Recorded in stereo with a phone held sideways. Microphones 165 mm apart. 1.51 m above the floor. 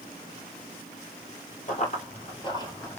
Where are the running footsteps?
50° left (ahead or behind), 2.5 m; by 3.0 s 10° left (ahead or behind), 1.8 m.